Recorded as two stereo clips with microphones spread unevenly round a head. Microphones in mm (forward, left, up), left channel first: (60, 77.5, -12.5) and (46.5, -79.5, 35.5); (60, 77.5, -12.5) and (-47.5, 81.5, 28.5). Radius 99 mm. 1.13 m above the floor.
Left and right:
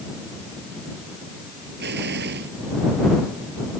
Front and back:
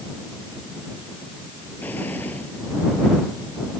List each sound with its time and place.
1.8 s an explosion: 85° right